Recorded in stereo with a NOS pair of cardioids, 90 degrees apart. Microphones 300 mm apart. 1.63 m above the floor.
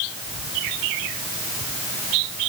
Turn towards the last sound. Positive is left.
No sound to turn to.